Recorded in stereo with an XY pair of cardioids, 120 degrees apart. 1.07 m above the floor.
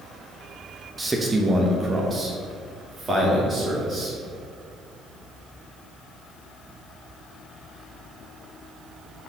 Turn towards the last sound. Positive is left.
turn(degrees=-40)